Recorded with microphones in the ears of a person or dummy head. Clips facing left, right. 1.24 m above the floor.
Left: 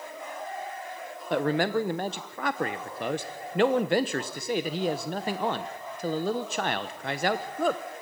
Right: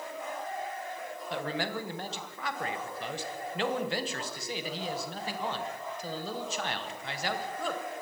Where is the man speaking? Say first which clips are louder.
Left 10 dB; 40° left (ahead or behind), 1.0 m.